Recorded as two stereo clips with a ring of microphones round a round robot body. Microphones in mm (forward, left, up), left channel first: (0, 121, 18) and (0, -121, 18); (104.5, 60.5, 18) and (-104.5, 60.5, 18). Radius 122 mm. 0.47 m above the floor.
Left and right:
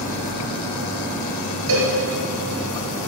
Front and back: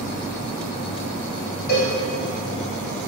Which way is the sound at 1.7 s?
55° right.